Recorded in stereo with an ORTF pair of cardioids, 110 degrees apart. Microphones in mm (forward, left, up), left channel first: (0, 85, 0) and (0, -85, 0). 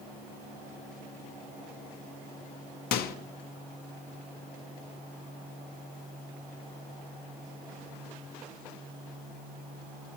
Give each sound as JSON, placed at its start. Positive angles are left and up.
{"t": 2.9, "sound": "a microwave", "azimuth_deg": 70, "distance_m": 0.6}